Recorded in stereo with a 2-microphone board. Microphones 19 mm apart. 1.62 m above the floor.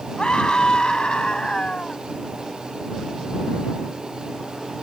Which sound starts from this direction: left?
A scream, at 0.2 s.